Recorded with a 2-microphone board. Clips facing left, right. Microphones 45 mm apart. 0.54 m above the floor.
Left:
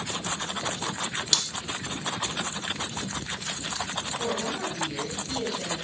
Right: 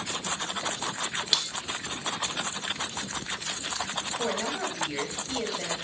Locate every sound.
1.3 s cutlery clinking: 10° right (ahead or behind), 0.6 m
4.2 s a woman speaking: 20° right (ahead or behind), 9 m